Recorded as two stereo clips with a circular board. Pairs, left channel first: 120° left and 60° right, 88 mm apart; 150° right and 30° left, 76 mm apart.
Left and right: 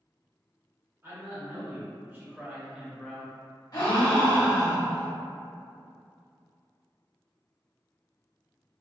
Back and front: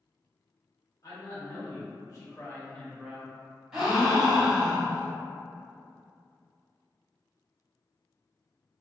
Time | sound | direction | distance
1.0 | a man speaking | 120° right | 1.6 m
3.7 | a gasp | 110° left | 1.1 m